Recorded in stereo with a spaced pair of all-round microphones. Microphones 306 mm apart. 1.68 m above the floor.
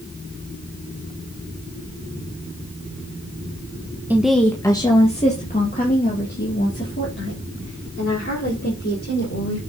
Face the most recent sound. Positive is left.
turn(degrees=45)  # may be behind; listen again after turning